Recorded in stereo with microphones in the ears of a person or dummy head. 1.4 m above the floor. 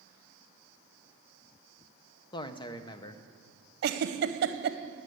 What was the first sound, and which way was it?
A man speaking, 25° left (ahead or behind).